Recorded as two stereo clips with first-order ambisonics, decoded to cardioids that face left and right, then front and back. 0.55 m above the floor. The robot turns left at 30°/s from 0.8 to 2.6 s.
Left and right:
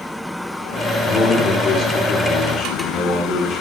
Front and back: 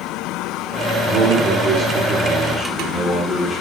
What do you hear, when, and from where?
1.1 s a man speaking: 140° left, 1.5 m; by 3.6 s 90° left, 1.5 m